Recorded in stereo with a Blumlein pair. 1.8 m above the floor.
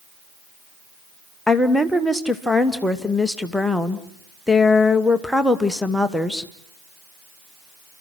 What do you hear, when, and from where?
1.5 s a woman speaking: straight ahead, 1.3 m